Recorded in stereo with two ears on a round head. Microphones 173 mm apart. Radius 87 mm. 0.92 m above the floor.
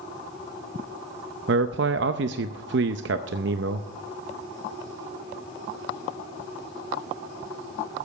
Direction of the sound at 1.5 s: 70° right (ahead or behind).